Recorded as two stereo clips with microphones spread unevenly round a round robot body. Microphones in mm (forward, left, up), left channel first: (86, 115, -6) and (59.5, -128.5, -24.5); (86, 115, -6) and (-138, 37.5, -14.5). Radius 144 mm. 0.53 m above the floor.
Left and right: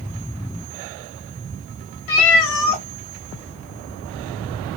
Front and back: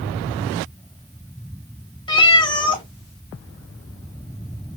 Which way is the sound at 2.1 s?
90° left.